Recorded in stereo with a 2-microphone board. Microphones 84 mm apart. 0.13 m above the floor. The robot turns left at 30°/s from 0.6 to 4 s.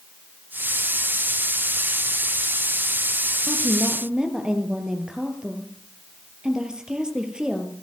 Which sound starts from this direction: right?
A woman speaking, at 3.5 s.